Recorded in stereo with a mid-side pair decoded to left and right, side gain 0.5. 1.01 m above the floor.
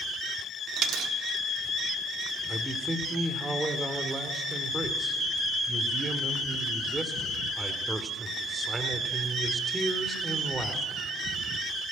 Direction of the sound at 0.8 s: 60° right.